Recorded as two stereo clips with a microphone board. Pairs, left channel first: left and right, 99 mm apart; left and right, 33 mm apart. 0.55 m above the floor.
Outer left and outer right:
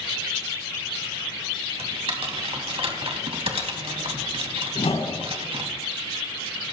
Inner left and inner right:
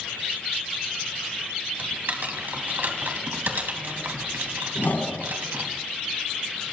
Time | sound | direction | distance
1.8 | typing on a keyboard | 70° right (ahead or behind) | 3.5 m
4.8 | a whoosh | 75° left (ahead or behind) | 3.5 m